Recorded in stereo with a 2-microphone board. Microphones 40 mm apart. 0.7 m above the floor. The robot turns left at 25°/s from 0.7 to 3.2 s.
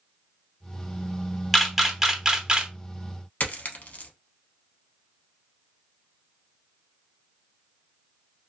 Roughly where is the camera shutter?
Centre.